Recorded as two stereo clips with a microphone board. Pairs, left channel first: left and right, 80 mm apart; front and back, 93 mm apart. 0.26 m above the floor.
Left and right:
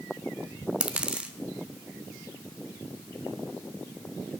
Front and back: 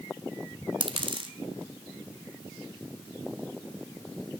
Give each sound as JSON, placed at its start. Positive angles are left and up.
{"t": 0.8, "sound": "a dropped coin", "azimuth_deg": -165, "distance_m": 1.1}